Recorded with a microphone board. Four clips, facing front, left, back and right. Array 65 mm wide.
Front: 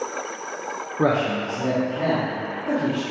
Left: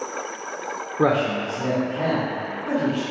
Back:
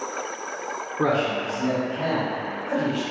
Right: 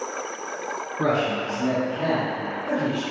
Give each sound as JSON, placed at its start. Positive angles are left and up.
{"t": 1.0, "sound": "a man speaking", "azimuth_deg": 70, "distance_m": 0.6}